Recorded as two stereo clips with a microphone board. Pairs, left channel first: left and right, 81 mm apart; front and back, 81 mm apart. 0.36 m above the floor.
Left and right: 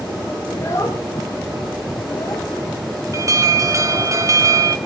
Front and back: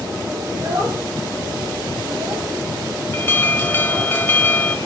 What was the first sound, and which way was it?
A child speaking, 145° left.